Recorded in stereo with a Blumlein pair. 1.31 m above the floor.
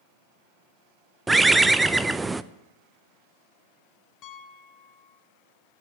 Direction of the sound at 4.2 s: 35° left.